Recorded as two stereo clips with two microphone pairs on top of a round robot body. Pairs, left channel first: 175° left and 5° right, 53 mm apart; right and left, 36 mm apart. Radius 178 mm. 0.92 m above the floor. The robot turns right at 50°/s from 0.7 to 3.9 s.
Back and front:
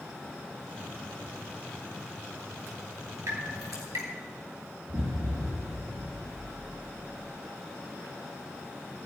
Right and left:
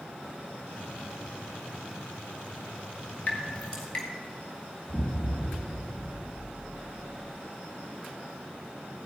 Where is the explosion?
25° right, 2 m.